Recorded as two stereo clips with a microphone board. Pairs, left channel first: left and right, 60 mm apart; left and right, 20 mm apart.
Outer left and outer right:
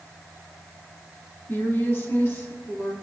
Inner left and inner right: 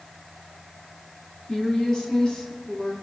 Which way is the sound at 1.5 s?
35° left (ahead or behind).